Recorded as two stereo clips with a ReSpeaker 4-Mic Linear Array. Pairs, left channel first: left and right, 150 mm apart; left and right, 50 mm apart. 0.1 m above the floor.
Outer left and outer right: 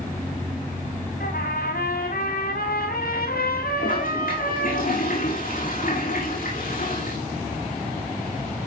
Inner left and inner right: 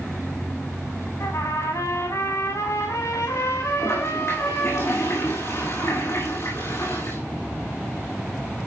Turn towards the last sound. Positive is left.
turn(degrees=65)  # may be behind; listen again after turning